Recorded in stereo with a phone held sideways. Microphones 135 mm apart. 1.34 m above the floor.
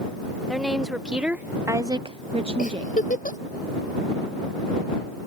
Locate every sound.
0.5 s a woman speaking: centre (ahead or behind); by 3.0 s 35° right (ahead or behind)
2.6 s a giggle: 70° left (ahead or behind)